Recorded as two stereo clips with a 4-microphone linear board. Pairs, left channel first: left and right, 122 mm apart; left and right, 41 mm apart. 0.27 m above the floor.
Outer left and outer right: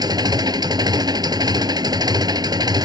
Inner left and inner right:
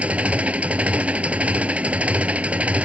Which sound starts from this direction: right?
An engine running, at 0.0 s.